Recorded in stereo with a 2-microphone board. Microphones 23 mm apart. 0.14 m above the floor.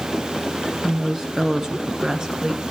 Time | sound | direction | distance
0.8 | a woman speaking | 25° right (ahead or behind) | 2 m